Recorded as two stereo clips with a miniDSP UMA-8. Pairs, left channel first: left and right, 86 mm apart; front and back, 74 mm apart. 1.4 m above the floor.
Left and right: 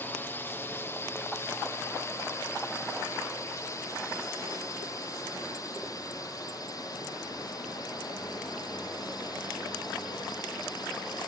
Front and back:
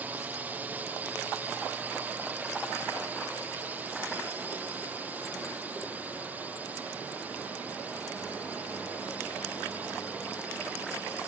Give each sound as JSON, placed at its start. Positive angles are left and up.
{"t": 0.0, "sound": "a drone", "azimuth_deg": 135}